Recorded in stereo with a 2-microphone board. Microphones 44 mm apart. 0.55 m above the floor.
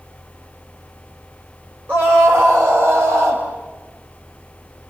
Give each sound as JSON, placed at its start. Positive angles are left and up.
{"t": 1.9, "sound": "a scream", "side_deg": -50, "distance_m": 2.5}